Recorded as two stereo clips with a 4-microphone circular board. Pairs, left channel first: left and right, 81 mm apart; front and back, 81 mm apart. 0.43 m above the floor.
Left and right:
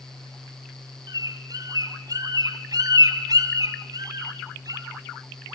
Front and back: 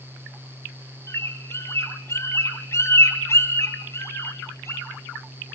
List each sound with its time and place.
1.1 s a bird: 55° right, 3 m